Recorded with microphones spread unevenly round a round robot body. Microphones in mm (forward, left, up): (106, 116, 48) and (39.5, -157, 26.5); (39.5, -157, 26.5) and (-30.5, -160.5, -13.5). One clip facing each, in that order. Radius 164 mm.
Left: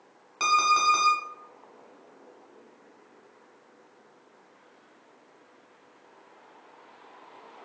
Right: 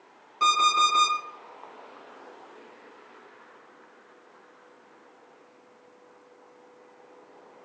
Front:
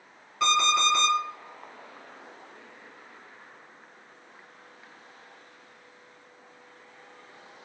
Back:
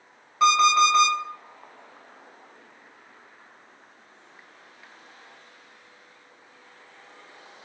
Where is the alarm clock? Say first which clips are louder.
Right 1 dB, back 6 dB; 120° left, 1.1 m.